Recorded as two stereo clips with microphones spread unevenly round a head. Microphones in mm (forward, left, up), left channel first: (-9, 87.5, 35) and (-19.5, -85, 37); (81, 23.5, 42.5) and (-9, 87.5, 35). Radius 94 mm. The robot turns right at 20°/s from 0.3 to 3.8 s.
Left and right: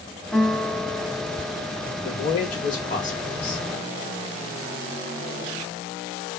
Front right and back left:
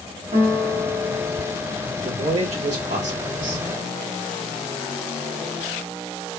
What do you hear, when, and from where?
0.3 s a guitar: 175° left, 0.9 m; by 1.6 s 160° right, 0.9 m
2.0 s a man speaking: 115° left, 1.9 m; by 3.7 s 150° left, 1.9 m